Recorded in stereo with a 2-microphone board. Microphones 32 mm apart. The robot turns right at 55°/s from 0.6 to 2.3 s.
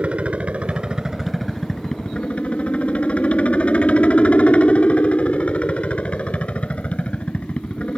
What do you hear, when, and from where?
0.0 s a helicopter: 45° right; by 8.0 s 50° left